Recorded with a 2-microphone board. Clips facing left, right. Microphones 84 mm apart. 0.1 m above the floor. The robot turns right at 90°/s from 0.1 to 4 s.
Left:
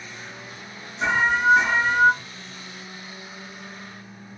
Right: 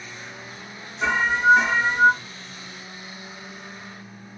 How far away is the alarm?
About 2.5 m.